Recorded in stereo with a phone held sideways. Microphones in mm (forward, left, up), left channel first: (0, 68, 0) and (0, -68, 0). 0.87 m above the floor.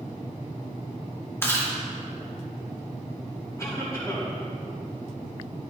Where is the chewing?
15° left (ahead or behind), 1.7 m.